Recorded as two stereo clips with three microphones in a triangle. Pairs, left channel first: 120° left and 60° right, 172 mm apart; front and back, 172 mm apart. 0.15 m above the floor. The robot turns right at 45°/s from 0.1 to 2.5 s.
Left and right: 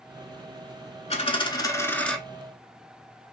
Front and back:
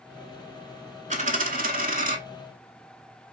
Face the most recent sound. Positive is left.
turn(degrees=-140)